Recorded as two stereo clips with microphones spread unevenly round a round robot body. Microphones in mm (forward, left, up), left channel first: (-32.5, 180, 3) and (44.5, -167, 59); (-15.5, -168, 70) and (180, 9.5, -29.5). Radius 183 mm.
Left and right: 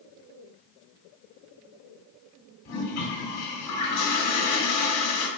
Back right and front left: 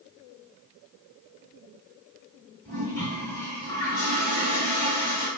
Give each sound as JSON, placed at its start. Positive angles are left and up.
{"t": 2.6, "sound": "a toilet flushing", "azimuth_deg": 125, "distance_m": 1.6}